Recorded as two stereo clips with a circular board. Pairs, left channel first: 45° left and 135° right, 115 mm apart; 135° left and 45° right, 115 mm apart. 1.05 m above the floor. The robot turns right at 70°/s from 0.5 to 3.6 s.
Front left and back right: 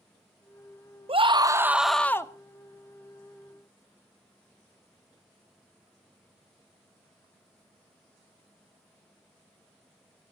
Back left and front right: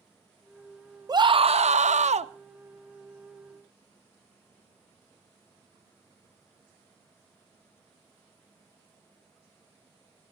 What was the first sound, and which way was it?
A scream, 100° right.